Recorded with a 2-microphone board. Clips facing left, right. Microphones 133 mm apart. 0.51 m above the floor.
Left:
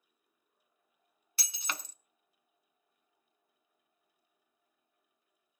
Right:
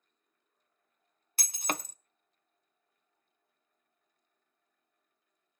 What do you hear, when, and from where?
1.4 s breaking glass: 50° right (ahead or behind), 0.5 m